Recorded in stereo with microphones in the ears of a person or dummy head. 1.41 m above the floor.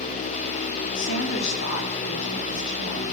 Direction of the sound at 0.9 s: 65° left (ahead or behind).